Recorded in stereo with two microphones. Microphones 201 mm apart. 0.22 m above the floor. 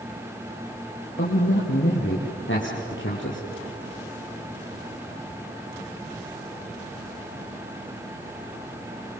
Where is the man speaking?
75° left (ahead or behind), 4 m; by 3.4 s 70° left (ahead or behind), 6 m.